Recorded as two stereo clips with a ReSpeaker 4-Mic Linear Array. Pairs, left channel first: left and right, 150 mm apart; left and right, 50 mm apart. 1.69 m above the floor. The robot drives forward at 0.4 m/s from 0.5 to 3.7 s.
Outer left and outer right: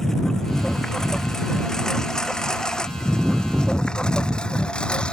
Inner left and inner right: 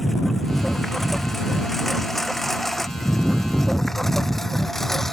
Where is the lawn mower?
5° left (ahead or behind).